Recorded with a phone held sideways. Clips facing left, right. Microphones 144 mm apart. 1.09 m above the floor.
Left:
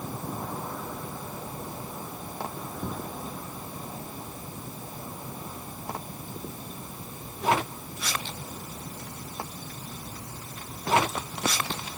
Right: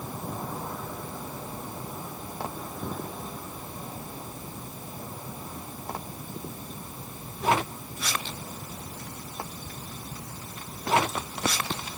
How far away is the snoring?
No snoring in this recording.